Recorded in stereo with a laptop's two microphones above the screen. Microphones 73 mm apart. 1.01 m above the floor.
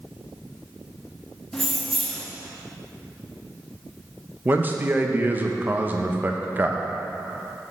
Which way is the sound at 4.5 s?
25° right (ahead or behind).